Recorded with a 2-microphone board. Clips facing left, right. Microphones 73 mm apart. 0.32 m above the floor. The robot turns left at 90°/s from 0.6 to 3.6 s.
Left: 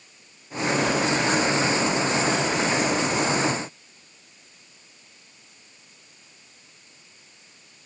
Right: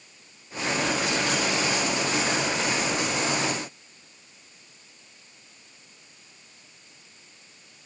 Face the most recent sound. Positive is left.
No sound to turn to.